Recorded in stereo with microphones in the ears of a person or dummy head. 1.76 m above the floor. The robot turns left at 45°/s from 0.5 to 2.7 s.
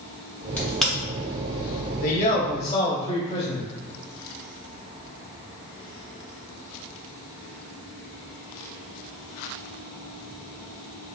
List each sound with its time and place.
0.6 s a crack: 10° left (ahead or behind), 1.2 m; by 0.9 s 5° right (ahead or behind), 1.2 m
2.0 s a man speaking: 65° left, 0.9 m; by 3.6 s 35° left, 0.9 m